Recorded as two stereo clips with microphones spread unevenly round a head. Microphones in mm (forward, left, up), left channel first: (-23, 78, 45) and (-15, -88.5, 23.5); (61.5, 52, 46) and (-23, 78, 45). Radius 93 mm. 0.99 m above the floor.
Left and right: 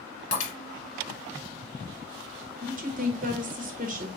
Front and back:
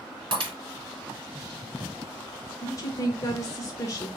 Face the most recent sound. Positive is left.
turn(degrees=-70)